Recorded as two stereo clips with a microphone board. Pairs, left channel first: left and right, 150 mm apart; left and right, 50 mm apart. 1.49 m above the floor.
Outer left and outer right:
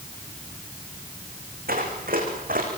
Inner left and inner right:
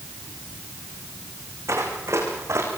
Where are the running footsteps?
75° right (ahead or behind), 7 m; by 2.7 s 70° right (ahead or behind), 6.5 m.